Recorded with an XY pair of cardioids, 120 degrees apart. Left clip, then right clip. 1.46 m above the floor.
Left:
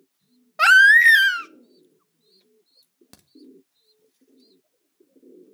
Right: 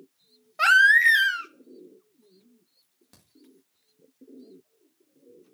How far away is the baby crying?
About 0.6 m.